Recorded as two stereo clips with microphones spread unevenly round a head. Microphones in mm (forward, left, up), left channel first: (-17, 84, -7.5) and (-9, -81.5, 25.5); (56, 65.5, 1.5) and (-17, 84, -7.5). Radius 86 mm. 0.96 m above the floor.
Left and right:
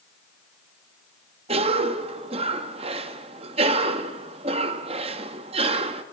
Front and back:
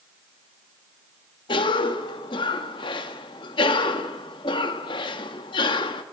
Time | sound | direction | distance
1.5 | a cough | 30° right | 1.6 m